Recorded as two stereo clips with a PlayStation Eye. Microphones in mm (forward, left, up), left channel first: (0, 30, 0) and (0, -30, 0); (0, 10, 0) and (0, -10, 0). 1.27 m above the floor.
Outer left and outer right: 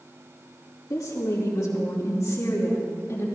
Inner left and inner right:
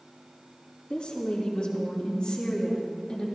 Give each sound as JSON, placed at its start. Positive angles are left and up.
{"t": 0.9, "sound": "a woman speaking", "side_deg": 70, "distance_m": 2.5}